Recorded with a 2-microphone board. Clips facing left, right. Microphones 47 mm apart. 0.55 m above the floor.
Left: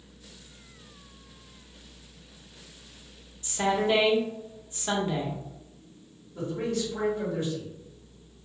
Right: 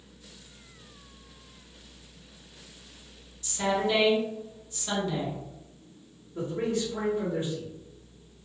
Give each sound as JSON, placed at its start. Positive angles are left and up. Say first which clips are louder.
{"t": 3.4, "sound": "a woman speaking", "louder": "left 2 dB", "side_deg": 30, "distance_m": 0.8}
{"t": 6.3, "sound": "a man speaking", "louder": "right 1 dB", "side_deg": -20, "distance_m": 1.1}